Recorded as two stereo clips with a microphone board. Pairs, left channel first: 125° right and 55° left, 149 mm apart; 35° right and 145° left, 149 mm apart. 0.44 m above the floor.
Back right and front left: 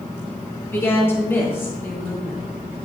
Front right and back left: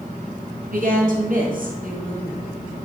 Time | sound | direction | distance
0.7 | a woman speaking | 160° left | 4 m